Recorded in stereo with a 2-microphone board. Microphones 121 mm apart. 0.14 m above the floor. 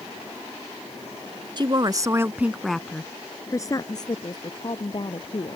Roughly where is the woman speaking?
Right.